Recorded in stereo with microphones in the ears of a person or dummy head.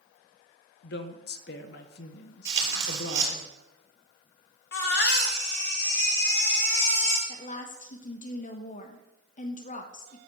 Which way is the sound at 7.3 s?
40° left (ahead or behind).